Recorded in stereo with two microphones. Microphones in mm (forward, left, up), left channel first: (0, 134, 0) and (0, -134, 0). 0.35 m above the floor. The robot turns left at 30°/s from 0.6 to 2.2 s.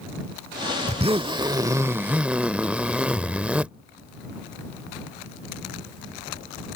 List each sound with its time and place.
0.9 s a zipper: 130° right; by 3.7 s 170° right